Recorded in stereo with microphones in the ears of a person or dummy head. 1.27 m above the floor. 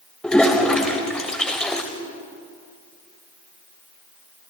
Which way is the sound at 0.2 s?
Centre (ahead or behind).